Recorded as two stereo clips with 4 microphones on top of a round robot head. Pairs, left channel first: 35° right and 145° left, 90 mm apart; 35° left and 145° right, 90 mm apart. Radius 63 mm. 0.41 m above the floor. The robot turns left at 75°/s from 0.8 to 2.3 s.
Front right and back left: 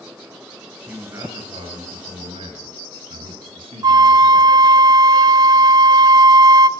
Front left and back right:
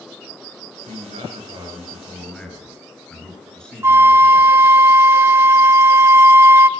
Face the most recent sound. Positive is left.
turn(degrees=160)